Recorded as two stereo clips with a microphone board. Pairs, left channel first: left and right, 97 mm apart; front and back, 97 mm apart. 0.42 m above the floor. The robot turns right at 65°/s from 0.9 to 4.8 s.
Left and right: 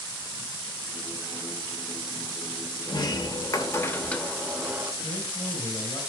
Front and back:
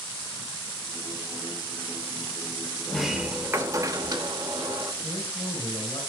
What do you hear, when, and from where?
2.9 s a sliding door: 80° left, 1.0 m; by 4.9 s 150° right, 1.0 m
5.0 s a man speaking: 60° left, 4.5 m